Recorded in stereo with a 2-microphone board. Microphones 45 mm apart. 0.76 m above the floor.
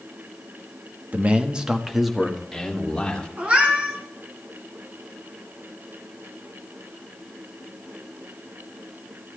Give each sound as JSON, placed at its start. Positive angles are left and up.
{"t": 1.1, "sound": "a man speaking", "side_deg": -40, "distance_m": 1.0}
{"t": 3.4, "sound": "a cat meowing", "side_deg": -35, "distance_m": 3.0}